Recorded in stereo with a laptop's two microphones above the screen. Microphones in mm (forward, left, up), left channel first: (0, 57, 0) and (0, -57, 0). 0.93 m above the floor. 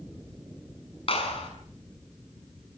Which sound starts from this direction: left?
A clap, at 1.1 s.